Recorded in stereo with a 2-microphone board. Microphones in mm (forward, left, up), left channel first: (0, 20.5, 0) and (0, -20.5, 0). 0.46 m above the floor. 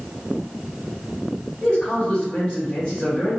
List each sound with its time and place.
1.6 s a man speaking: 30° left (ahead or behind), 2.0 m